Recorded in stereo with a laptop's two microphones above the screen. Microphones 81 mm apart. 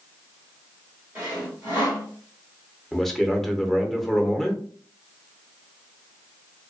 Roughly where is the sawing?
Right.